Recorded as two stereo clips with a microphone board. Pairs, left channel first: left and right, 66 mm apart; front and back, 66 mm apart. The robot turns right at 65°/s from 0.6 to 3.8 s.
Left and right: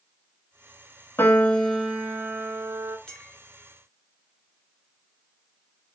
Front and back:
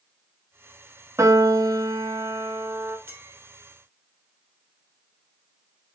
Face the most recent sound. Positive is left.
turn(degrees=-155)